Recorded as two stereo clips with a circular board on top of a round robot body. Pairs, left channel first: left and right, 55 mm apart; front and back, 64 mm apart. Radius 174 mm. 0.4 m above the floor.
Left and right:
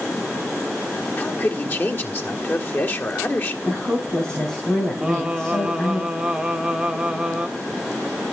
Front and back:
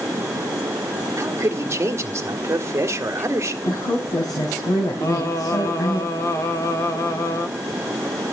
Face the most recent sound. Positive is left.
turn(degrees=-15)